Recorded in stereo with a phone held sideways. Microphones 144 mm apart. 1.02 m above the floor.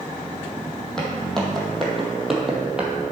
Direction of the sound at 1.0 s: 5° left (ahead or behind).